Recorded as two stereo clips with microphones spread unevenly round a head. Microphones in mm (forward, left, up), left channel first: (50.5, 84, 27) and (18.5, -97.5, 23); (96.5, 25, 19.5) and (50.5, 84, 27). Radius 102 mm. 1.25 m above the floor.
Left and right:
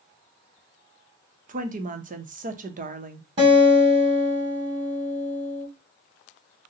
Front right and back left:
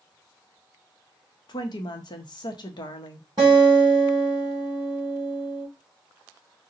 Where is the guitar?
160° right, 1.9 m.